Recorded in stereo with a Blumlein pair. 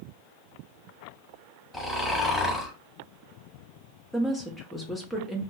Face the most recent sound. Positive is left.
turn(degrees=5)